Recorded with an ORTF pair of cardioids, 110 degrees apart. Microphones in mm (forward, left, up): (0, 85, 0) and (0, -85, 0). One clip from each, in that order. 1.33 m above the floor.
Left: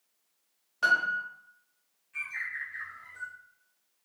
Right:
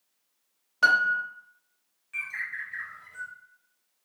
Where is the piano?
25° right, 0.6 m.